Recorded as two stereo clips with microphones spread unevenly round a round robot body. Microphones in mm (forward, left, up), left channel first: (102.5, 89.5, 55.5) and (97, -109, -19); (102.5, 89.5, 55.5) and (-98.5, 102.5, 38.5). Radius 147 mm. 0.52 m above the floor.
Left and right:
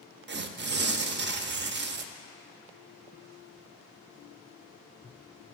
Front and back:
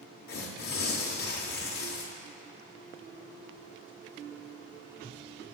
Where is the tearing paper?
60° right, 0.6 m.